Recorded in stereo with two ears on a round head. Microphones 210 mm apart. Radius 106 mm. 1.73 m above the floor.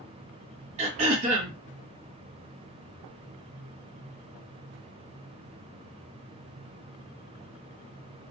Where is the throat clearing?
30° right (ahead or behind), 1.1 m.